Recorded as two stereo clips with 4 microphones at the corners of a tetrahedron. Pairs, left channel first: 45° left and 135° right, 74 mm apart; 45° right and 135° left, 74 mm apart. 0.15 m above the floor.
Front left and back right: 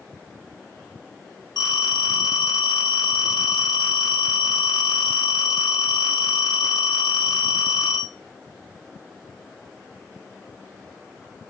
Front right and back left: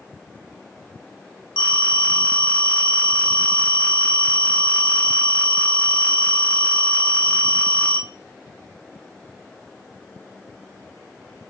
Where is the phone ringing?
60° left, 4.5 m.